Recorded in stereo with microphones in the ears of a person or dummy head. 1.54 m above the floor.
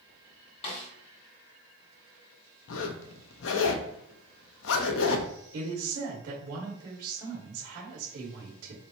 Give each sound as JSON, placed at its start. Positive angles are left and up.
{"t": 0.6, "sound": "a snare drum", "side_deg": 30, "distance_m": 1.6}
{"t": 2.7, "sound": "a zipper", "side_deg": 70, "distance_m": 0.7}
{"t": 5.5, "sound": "a woman speaking", "side_deg": -45, "distance_m": 2.0}